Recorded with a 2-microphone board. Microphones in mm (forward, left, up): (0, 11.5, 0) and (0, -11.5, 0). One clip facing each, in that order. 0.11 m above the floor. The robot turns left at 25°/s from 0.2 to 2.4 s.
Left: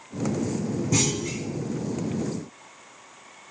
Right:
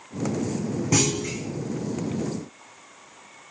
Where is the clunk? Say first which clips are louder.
Right 3 dB; 40° right (ahead or behind), 1.9 m; by 1.4 s 50° right (ahead or behind), 1.9 m.